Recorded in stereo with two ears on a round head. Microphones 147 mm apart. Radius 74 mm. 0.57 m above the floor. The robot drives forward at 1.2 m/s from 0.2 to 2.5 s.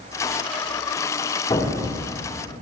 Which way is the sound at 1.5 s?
30° left (ahead or behind).